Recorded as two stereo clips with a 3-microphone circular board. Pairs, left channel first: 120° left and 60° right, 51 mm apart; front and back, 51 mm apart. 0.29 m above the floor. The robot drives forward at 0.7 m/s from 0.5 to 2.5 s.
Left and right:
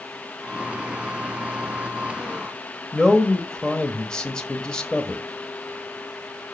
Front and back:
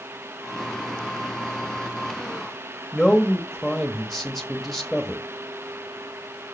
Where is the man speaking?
75° left, 1.2 m.